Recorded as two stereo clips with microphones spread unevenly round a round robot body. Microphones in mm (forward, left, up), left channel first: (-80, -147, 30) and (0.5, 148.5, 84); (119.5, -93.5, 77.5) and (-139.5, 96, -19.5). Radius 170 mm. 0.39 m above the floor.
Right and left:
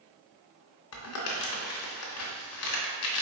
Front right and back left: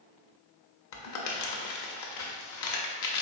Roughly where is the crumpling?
Right.